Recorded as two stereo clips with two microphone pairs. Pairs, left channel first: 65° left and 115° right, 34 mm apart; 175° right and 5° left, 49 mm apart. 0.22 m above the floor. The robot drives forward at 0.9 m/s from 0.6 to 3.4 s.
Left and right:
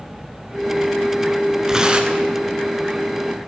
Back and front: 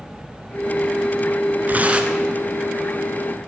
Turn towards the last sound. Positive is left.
turn(degrees=-140)